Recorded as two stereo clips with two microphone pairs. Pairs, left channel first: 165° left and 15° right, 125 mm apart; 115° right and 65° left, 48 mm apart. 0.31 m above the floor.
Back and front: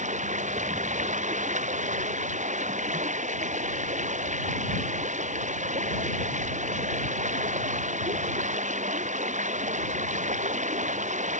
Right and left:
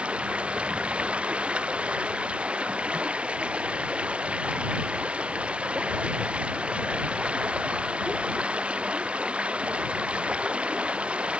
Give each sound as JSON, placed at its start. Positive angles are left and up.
{"t": 0.0, "sound": "running water", "azimuth_deg": 0}